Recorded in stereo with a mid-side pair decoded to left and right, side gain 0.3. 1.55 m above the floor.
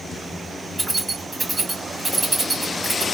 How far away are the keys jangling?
About 2 m.